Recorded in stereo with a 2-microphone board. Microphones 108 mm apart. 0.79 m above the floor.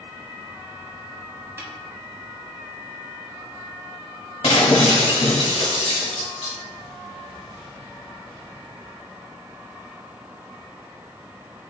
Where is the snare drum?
20° right (ahead or behind), 1.3 m.